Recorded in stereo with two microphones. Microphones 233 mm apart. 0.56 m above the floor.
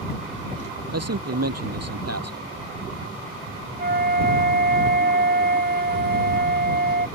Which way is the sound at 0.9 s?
85° right.